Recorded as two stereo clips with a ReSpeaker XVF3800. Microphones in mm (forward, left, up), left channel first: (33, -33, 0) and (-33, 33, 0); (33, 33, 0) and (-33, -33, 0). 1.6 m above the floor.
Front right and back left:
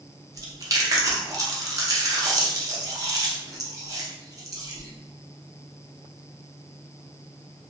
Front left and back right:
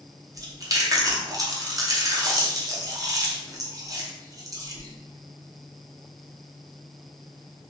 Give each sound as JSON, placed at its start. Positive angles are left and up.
{"t": 0.3, "sound": "chewing", "azimuth_deg": 180, "distance_m": 0.6}